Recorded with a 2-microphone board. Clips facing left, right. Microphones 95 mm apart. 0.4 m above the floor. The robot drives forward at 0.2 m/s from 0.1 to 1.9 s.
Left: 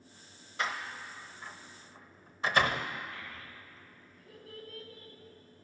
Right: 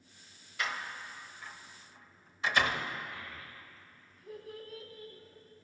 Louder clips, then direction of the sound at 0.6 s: Left 2 dB; 35° left (ahead or behind).